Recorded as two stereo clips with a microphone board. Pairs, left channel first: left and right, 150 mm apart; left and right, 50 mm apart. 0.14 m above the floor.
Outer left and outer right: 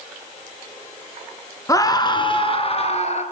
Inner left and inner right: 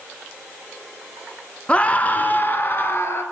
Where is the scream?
20° left (ahead or behind), 2 m; by 3.2 s 50° left (ahead or behind), 3 m.